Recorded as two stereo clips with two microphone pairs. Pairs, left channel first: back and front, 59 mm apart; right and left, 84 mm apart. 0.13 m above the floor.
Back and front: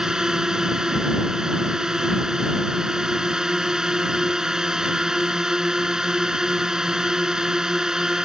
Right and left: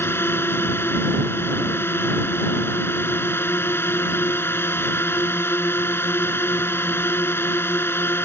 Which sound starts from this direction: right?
A drone, at 0.0 s.